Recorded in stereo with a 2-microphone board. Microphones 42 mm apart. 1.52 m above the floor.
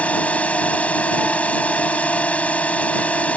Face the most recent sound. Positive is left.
turn(degrees=35)  # may be behind; listen again after turning